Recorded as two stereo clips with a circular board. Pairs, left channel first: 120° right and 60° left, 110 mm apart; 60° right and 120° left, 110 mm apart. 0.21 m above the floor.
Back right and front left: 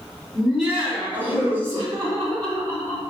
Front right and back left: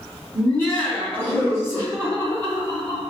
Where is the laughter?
15° right, 1.6 m; by 3.0 s 10° left, 2.5 m.